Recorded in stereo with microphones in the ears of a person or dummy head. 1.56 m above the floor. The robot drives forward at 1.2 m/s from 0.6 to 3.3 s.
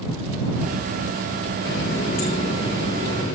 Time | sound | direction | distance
1.6 | a running tap | 55° left (ahead or behind) | 0.9 m